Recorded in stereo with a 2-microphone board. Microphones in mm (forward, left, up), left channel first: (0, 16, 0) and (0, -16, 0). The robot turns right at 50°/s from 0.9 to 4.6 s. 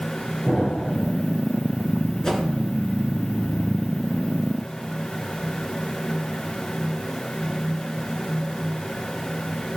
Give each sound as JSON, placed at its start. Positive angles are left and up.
{"t": 0.5, "sound": "an explosion", "side_deg": 25, "distance_m": 6.5}
{"t": 2.2, "sound": "a whoosh", "side_deg": 20, "distance_m": 3.0}